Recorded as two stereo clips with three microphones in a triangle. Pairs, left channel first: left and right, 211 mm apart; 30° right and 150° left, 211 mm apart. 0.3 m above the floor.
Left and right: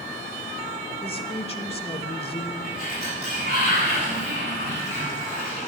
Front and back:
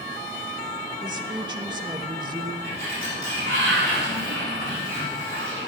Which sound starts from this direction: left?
A woman speaking, at 1.0 s.